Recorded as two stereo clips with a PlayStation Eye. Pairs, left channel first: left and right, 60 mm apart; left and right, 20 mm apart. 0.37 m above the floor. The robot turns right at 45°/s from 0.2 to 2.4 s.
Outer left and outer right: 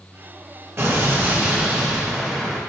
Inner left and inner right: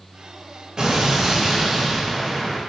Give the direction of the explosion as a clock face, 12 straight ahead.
2 o'clock.